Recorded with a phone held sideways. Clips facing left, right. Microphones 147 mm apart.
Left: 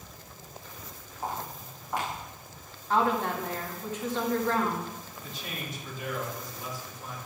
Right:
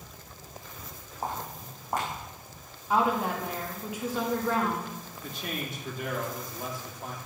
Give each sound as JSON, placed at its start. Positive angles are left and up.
{"t": 1.2, "sound": "footsteps", "side_deg": -45, "distance_m": 5.5}
{"t": 2.9, "sound": "a woman speaking", "side_deg": -10, "distance_m": 2.5}
{"t": 5.2, "sound": "a man speaking", "side_deg": -55, "distance_m": 2.5}